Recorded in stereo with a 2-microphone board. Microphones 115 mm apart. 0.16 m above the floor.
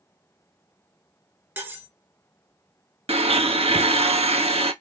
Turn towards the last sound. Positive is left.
turn(degrees=-60)  # may be behind; listen again after turning